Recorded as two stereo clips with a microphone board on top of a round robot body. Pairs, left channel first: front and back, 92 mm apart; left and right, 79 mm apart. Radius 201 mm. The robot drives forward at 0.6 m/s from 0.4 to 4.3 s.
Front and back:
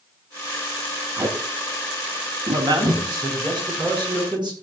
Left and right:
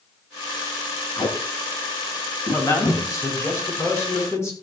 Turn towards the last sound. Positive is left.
turn(degrees=145)